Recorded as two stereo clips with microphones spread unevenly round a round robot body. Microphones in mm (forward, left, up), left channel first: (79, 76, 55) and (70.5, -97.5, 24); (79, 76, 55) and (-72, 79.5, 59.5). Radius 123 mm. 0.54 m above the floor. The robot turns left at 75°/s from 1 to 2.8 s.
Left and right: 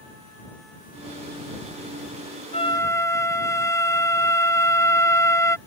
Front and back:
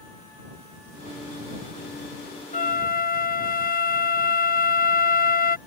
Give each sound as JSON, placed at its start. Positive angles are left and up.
{"t": 2.5, "sound": "a flute", "azimuth_deg": 30}